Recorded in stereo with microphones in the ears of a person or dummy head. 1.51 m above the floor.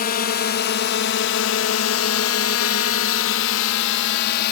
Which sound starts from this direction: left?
A drone, at 0.0 s.